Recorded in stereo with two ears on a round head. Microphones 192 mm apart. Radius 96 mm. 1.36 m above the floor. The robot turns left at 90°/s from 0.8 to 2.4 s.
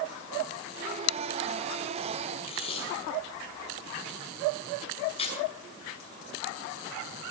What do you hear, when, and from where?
2.4 s tape being pulled: 30° left (ahead or behind), 6 m